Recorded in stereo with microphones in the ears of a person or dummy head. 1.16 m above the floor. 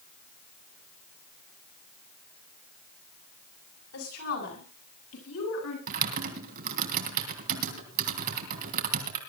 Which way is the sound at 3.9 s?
90° left.